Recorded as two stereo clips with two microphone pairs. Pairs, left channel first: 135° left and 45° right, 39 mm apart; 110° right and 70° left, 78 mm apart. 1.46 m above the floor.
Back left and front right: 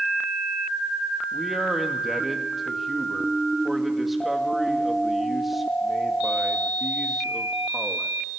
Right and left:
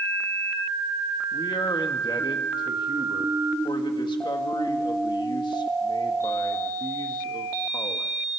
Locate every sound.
1.3 s a man speaking: 130° right, 2 m